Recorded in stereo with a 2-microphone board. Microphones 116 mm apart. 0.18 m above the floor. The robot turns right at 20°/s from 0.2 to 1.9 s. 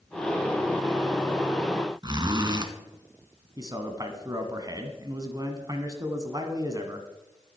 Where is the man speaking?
35° right (ahead or behind), 1.5 m.